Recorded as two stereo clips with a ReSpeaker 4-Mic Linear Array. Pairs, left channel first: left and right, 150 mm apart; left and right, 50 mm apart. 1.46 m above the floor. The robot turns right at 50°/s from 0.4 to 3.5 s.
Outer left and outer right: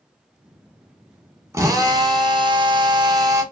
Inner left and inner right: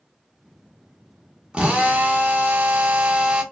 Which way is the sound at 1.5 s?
140° right.